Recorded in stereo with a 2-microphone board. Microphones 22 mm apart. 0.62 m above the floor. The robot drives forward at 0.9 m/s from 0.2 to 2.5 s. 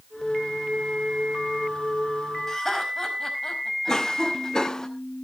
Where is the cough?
25° left (ahead or behind), 0.7 m.